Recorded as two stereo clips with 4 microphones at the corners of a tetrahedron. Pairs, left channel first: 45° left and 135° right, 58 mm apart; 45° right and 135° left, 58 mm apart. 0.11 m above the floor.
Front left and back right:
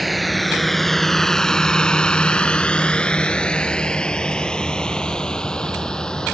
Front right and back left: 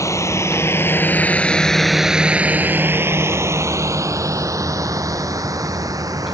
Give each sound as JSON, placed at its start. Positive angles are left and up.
{"t": 0.0, "sound": "a drone", "azimuth_deg": -45}